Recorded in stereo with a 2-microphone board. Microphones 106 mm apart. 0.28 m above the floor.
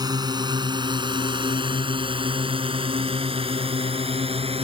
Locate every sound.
0.0 s a drone: 40° right (ahead or behind); by 4.6 s 65° right (ahead or behind)